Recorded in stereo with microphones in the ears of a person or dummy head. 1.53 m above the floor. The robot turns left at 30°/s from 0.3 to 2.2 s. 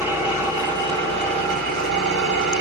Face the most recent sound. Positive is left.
turn(degrees=-65)